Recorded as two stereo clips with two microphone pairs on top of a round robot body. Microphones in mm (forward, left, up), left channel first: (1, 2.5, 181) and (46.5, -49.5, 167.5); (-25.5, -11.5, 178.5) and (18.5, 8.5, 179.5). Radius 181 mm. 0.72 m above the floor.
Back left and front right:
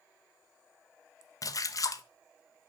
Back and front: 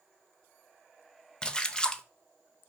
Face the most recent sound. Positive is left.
turn(degrees=145)